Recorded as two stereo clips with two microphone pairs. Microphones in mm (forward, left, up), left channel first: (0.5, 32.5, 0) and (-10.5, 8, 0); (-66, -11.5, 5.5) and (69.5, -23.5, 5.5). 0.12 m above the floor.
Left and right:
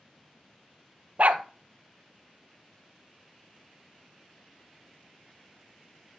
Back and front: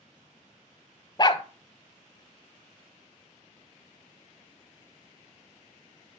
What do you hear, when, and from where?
1.2 s a dog barking: 130° right, 0.7 m